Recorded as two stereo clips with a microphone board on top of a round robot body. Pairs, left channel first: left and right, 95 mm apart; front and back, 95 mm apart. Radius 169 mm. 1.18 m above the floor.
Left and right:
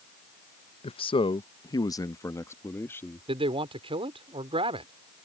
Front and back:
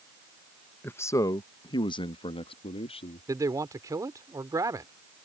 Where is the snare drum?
I don't hear a snare drum.